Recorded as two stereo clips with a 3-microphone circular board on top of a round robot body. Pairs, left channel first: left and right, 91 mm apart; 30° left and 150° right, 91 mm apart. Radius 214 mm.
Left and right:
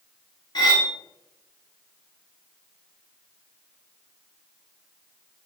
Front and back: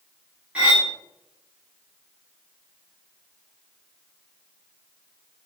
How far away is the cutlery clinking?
About 0.9 m.